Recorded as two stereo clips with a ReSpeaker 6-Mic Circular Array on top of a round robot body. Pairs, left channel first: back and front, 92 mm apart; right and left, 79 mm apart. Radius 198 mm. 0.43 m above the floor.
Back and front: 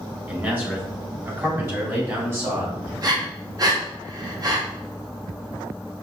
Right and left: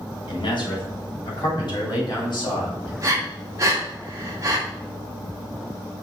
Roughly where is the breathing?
Ahead left.